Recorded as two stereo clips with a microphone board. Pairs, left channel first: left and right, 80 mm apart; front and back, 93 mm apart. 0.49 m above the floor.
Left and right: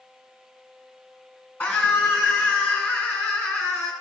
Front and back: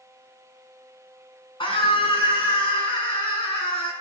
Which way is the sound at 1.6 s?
20° left.